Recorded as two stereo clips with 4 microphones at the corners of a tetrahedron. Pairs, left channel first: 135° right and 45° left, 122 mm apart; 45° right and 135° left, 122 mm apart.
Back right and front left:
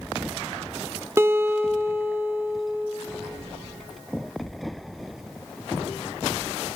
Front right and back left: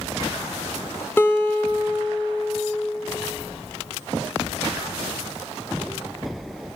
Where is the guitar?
Straight ahead, 0.5 m.